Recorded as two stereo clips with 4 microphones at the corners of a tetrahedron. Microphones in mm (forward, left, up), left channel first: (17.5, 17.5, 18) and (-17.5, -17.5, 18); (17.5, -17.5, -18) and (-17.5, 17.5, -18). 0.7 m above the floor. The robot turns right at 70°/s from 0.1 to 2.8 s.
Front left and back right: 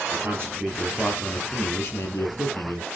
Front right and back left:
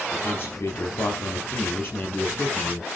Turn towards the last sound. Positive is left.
turn(degrees=75)